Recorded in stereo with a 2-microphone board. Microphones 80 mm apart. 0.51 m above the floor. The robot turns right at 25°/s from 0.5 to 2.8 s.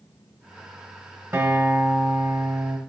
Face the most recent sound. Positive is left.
turn(degrees=-110)